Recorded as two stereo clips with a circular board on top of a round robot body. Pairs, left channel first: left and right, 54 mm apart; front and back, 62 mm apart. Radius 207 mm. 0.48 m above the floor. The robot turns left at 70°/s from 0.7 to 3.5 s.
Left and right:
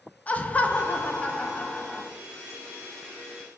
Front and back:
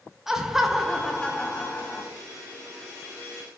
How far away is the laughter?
About 0.7 m.